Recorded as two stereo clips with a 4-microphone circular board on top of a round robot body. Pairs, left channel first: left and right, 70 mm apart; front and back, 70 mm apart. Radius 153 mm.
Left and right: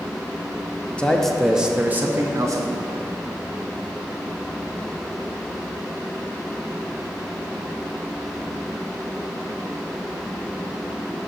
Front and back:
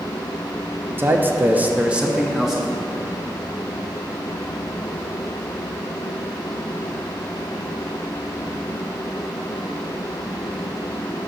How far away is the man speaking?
About 0.8 m.